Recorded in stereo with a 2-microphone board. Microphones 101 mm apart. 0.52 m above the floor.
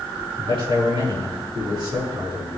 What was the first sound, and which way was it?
A man speaking, 60° right (ahead or behind).